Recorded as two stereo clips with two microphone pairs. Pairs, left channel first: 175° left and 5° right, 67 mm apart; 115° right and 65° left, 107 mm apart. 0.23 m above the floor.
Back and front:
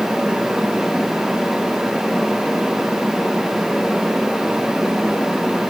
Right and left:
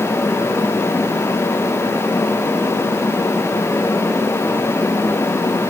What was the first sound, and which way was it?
Only background noise.